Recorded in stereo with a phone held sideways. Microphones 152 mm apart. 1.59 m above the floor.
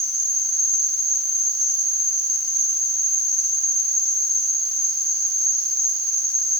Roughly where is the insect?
Right.